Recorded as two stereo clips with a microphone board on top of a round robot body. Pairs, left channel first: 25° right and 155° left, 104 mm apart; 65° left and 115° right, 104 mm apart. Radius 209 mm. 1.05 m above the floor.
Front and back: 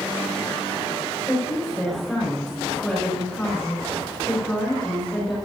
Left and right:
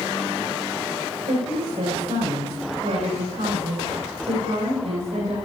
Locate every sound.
1.3 s a woman speaking: 110° right, 5 m